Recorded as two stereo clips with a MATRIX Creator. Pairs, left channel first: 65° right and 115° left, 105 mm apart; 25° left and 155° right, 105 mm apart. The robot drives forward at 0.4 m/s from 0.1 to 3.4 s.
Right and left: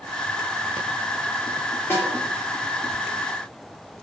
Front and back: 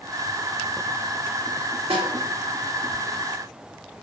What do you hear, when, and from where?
1.9 s a snare drum: 135° right, 1.6 m